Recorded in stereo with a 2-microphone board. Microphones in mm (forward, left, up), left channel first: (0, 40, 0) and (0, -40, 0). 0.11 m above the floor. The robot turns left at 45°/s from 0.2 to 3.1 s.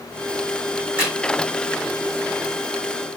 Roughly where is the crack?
Right.